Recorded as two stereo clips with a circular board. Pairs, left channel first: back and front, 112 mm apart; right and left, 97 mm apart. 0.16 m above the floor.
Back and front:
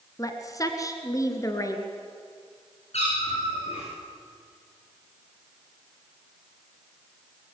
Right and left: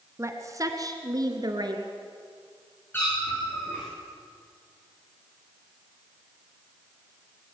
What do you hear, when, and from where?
0.2 s a woman speaking: 135° left, 1.9 m; by 1.8 s 125° left, 3 m
2.9 s a cat meowing: 160° right, 7 m